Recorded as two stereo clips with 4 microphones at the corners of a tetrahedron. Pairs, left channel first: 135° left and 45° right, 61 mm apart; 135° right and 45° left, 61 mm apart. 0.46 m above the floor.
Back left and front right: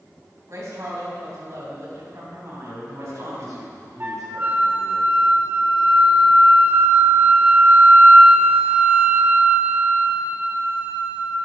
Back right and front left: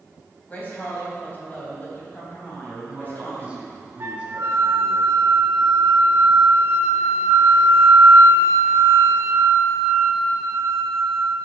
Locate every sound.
0.5 s a woman speaking: 75° right, 3 m
2.6 s a man speaking: 25° right, 3.5 m
4.0 s a flute: 10° left, 1.1 m